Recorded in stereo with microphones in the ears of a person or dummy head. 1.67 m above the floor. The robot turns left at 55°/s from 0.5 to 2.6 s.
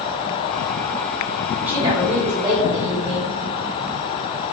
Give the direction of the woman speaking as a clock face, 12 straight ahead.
12 o'clock.